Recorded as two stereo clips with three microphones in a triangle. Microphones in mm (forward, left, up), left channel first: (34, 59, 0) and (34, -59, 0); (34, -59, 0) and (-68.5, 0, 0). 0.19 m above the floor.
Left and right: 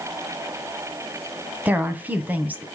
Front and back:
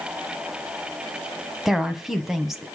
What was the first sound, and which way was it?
A woman speaking, 130° right.